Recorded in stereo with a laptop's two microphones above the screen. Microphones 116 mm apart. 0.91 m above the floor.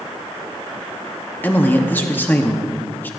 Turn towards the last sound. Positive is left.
turn(degrees=15)  # may be behind; listen again after turning